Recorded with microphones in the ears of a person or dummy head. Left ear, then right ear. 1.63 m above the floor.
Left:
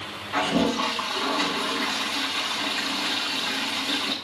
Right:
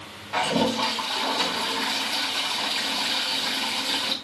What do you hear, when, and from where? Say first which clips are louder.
0.3 s a toilet flushing: even; 35° right (ahead or behind), 3.5 m